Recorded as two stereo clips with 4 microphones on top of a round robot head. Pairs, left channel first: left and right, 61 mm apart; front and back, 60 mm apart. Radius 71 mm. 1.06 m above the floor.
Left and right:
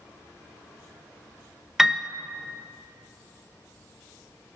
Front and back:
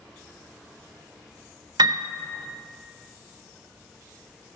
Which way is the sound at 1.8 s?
175° right.